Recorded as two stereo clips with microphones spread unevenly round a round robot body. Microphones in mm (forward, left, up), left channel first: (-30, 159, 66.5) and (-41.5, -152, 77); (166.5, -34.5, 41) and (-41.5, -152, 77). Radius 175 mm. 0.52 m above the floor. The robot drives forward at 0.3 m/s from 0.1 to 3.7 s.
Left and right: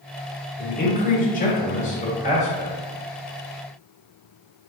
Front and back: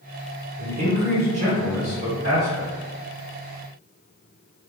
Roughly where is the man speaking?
Behind left.